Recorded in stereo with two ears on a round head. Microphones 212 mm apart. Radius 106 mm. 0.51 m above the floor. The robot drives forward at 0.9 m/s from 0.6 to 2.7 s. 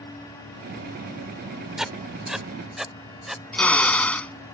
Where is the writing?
Centre (ahead or behind).